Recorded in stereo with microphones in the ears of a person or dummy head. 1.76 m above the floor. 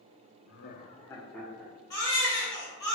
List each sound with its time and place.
0.5 s laughter: 65° left (ahead or behind), 0.5 m; by 1.7 s 5° right (ahead or behind), 0.9 m
1.9 s a baby crying: 15° left (ahead or behind), 1.0 m